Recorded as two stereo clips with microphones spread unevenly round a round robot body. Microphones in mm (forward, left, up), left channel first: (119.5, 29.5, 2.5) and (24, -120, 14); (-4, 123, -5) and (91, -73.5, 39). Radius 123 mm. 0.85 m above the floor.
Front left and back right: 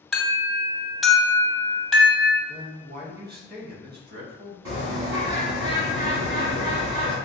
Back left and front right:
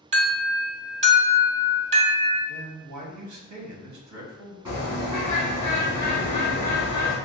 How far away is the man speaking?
About 1.0 m.